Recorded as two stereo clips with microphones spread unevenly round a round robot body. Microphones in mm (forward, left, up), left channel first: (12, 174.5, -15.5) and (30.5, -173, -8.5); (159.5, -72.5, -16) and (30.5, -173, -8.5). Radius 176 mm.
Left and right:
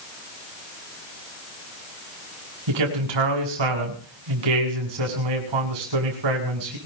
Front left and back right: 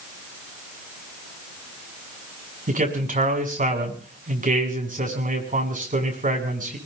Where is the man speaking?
105° right, 7.5 m.